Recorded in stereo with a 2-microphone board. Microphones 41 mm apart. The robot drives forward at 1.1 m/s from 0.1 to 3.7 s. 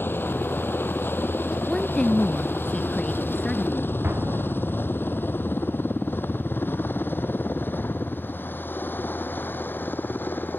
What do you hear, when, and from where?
0.0 s a helicopter: 65° left (ahead or behind); by 10.6 s 55° left (ahead or behind)
1.6 s a woman speaking: 15° left (ahead or behind); by 3.9 s 20° left (ahead or behind)
4.0 s an explosion: 65° right (ahead or behind)